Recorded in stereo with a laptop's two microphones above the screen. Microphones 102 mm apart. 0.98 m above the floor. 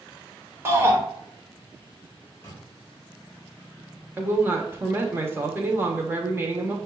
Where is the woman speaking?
20° right (ahead or behind), 0.8 m.